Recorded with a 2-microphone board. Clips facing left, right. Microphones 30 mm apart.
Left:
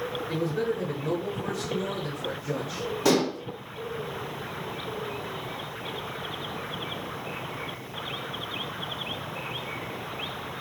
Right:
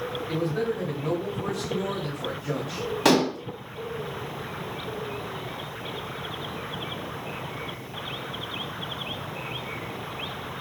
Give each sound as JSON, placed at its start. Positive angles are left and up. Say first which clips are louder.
{"t": 0.3, "sound": "a man speaking", "louder": "right 1 dB", "side_deg": -60, "distance_m": 2.5}
{"t": 3.0, "sound": "dishes clattering", "louder": "right 3 dB", "side_deg": -65, "distance_m": 1.8}